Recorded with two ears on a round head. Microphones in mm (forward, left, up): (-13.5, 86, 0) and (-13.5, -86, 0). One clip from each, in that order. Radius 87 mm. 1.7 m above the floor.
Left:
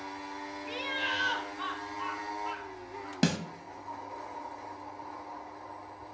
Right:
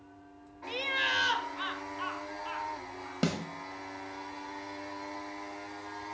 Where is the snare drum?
15° left (ahead or behind), 1.2 m.